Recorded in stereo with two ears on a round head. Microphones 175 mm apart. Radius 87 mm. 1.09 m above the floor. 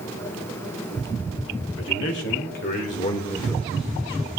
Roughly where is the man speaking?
Left.